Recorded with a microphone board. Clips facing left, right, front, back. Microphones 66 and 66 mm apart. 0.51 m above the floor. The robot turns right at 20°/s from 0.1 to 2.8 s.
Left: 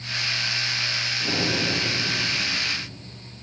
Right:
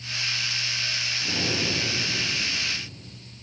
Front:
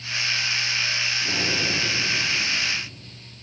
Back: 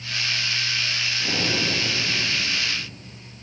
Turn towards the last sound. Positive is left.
turn(degrees=150)